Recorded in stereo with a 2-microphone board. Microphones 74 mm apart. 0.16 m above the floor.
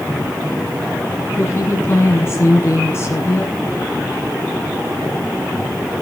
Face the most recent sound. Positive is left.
turn(degrees=35)  # may be behind; listen again after turning